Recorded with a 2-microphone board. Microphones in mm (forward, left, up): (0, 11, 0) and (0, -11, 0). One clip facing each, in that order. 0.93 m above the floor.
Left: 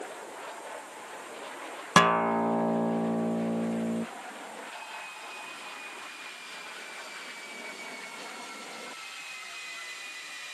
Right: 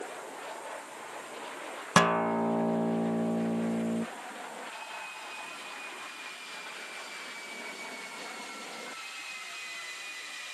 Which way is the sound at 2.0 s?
20° left (ahead or behind).